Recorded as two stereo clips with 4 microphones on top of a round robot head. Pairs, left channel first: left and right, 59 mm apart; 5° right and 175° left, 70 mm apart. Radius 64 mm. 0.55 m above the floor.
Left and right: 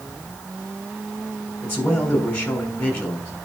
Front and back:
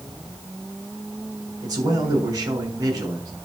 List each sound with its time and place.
1.6 s a man speaking: 145° left, 6 m